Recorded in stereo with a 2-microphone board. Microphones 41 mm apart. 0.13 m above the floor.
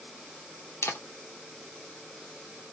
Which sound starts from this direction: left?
A camera shutter, at 0.8 s.